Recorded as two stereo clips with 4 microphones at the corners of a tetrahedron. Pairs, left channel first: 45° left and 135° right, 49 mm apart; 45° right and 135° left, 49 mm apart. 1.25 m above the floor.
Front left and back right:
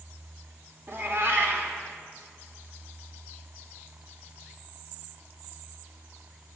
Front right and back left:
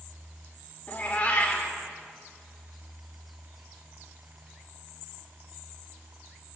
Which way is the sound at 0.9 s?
105° right.